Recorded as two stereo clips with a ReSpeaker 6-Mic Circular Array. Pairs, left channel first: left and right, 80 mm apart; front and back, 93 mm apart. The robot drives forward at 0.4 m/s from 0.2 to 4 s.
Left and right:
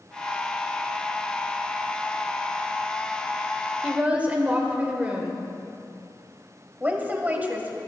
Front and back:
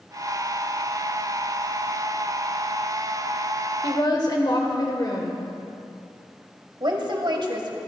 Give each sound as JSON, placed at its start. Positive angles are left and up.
{"t": 3.8, "sound": "a woman speaking", "azimuth_deg": -20, "distance_m": 1.6}
{"t": 6.8, "sound": "a woman speaking", "azimuth_deg": -155, "distance_m": 1.9}